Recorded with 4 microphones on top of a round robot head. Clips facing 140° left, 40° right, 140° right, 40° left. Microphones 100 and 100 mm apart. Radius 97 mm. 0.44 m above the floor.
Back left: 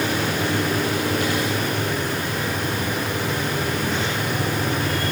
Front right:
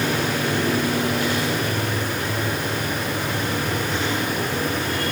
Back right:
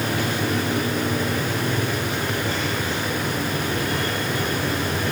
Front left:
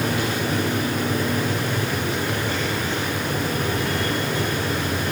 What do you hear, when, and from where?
Only background noise.